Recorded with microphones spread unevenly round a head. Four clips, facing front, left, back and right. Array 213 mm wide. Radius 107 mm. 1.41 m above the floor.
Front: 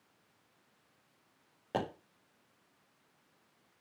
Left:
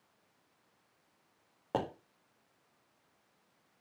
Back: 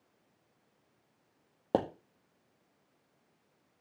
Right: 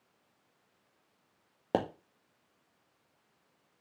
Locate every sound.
1.7 s a pop: 145° right, 2 m